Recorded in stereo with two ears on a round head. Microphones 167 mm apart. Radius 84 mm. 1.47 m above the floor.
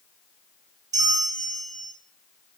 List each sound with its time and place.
0.9 s a bell: 20° right (ahead or behind), 0.7 m